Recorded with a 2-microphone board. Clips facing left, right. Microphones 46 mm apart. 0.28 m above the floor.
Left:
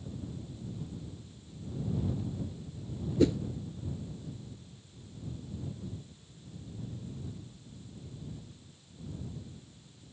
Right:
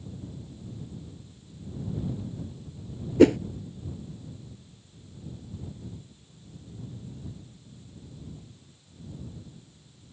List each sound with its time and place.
3.2 s a whoosh: 70° right (ahead or behind)